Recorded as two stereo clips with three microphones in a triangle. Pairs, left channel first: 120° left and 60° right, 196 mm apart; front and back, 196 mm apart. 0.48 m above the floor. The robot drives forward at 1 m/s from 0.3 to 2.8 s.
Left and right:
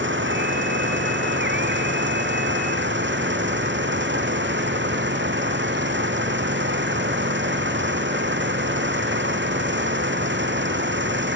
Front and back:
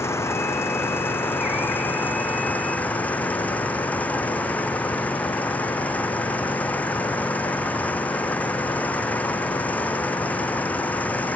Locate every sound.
0.0 s an engine running: 75° right; by 11.4 s 85° right